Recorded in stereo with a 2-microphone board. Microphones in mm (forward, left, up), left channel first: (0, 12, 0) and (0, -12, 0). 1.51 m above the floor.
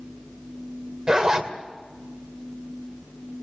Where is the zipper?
30° right (ahead or behind), 1.9 m.